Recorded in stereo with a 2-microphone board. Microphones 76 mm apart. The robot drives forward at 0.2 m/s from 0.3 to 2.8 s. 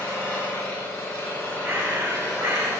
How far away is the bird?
About 1.5 m.